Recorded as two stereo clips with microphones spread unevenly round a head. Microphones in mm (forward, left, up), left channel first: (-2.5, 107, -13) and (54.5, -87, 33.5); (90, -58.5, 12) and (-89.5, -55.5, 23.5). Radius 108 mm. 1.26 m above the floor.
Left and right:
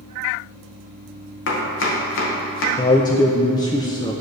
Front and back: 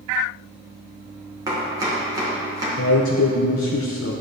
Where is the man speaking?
35° left, 0.5 m.